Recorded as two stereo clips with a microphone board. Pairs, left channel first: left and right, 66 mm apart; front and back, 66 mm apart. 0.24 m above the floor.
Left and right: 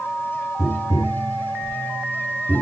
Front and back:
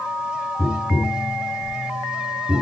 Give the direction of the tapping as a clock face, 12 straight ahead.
8 o'clock.